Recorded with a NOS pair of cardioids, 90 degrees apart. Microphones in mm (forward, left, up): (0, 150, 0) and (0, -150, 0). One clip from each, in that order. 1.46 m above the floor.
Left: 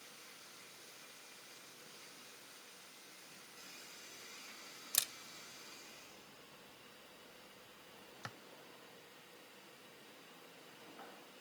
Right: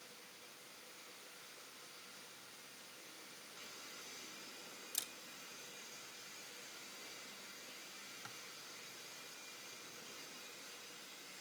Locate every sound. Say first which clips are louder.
4.9 s a camera shutter: left 8 dB; 55° left, 0.7 m